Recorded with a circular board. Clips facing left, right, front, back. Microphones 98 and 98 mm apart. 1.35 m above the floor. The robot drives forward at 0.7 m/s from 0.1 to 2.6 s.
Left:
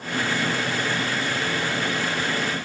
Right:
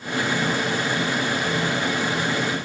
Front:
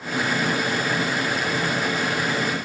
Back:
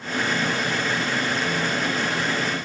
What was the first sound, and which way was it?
Only background noise.